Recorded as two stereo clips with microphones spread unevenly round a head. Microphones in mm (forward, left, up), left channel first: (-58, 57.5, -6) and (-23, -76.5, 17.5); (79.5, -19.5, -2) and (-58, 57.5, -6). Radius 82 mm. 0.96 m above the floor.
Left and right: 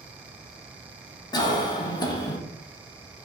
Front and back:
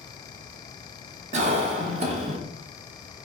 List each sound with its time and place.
1.3 s a cough: 135° left, 0.5 m